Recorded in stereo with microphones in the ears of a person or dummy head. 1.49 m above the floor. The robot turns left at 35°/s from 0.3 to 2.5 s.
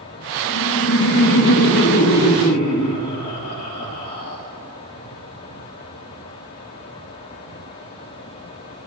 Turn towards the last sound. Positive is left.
turn(degrees=50)